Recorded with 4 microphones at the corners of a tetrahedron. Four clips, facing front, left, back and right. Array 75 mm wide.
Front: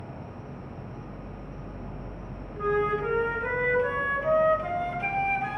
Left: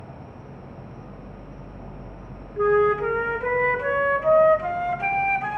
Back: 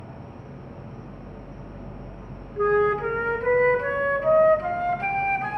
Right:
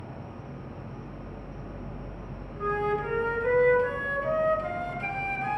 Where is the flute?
120° left, 0.6 m.